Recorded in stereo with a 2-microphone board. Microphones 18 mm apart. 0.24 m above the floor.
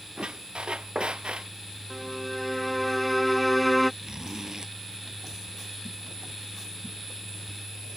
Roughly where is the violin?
Centre.